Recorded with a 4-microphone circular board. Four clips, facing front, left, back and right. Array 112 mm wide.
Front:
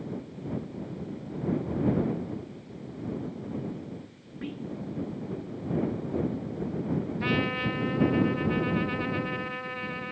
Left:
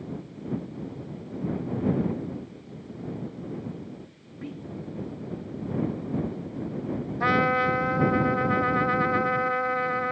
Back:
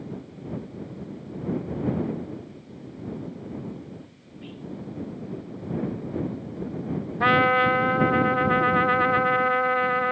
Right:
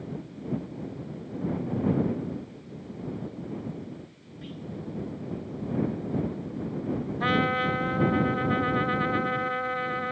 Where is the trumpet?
165° left.